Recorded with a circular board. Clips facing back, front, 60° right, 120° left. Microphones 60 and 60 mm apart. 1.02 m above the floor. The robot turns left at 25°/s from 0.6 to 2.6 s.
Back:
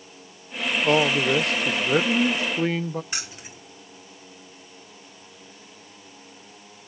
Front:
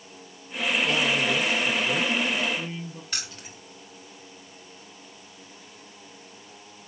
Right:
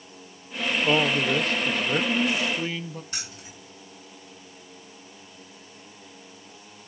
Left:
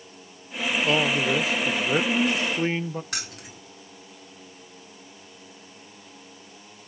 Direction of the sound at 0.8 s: 140° right.